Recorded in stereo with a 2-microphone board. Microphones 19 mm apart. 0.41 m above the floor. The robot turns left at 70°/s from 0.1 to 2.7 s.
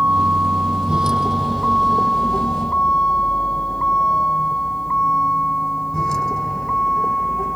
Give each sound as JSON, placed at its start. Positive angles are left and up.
{"t": 0.0, "sound": "a vehicle", "side_deg": -85}